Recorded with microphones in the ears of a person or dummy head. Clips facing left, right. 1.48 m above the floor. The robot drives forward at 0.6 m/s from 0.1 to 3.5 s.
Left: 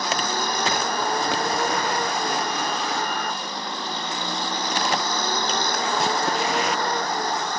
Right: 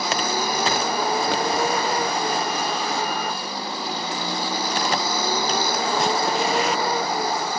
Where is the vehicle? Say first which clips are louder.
Right 2 dB; 5° right (ahead or behind).